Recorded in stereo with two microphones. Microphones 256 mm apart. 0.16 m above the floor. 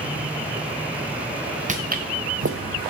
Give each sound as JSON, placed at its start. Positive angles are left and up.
{"t": 1.7, "sound": "footsteps", "side_deg": -30, "distance_m": 0.9}